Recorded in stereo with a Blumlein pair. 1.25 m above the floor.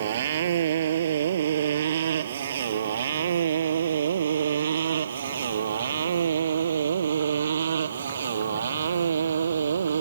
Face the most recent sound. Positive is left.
turn(degrees=-70)